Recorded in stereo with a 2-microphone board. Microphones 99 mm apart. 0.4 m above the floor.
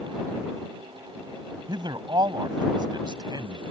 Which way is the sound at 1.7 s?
50° right (ahead or behind).